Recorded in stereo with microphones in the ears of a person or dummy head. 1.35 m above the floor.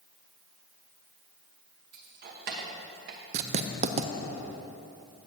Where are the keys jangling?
55° right (ahead or behind), 1.1 m.